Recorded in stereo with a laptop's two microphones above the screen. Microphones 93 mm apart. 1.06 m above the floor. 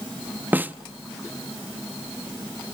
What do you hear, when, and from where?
0.5 s a snare drum: 20° right (ahead or behind), 1.0 m